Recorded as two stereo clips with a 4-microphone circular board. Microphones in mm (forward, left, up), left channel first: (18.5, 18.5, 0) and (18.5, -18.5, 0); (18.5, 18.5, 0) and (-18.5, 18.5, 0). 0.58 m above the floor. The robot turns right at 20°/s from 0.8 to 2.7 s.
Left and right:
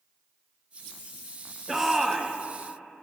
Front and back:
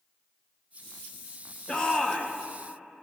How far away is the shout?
About 0.9 m.